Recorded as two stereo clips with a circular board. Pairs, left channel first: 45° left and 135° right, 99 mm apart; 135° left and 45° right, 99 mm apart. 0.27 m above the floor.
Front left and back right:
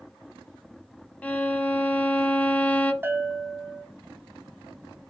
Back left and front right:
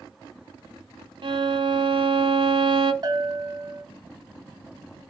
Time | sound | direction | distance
1.2 | a violin | 25° right | 0.8 m
3.0 | a bell | 75° right | 1.8 m